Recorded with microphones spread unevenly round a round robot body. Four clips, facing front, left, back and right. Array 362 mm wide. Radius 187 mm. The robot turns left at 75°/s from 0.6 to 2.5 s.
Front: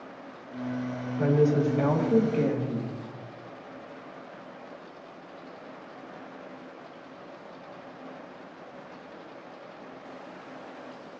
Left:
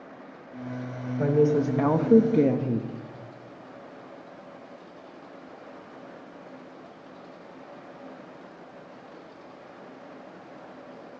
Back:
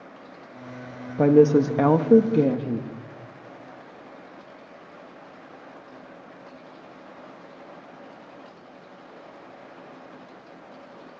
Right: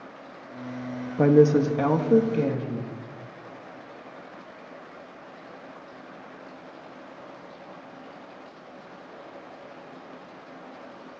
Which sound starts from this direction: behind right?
A woman speaking, at 1.2 s.